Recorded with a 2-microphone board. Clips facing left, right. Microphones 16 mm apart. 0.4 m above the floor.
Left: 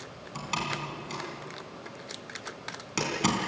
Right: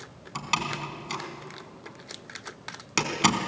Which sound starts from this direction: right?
A door slam, at 0.3 s.